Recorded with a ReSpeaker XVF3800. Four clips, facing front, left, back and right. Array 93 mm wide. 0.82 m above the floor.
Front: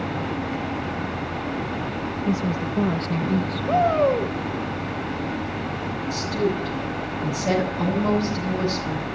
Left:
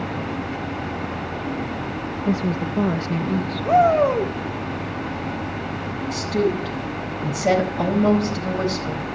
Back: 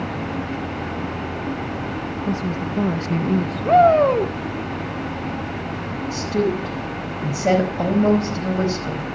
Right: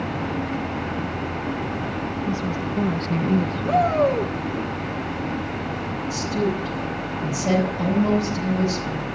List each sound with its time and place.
2.2 s a woman speaking: 80° left, 0.8 m; by 4.7 s 120° right, 1.3 m
3.6 s a shout: 160° left, 1.9 m
6.1 s a woman speaking: 145° left, 4.5 m